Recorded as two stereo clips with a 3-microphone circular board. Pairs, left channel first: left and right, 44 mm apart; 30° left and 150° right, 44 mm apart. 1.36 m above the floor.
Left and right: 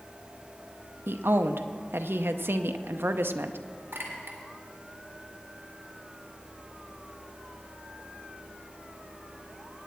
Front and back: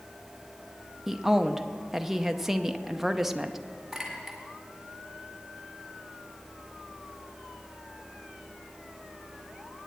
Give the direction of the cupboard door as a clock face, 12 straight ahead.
I don't hear a cupboard door.